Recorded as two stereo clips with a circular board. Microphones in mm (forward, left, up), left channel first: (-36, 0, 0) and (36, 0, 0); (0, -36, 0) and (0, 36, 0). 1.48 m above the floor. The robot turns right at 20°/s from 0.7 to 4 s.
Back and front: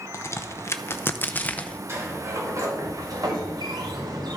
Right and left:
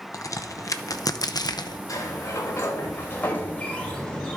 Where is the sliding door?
55° right, 2.5 m; by 4.4 s 10° right, 2.5 m.